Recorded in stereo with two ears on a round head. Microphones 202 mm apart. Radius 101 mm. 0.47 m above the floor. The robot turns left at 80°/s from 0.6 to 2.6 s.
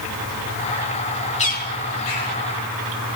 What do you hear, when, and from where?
1.4 s a bird: 30° left (ahead or behind), 4.5 m; by 2.4 s 75° left (ahead or behind), 4.5 m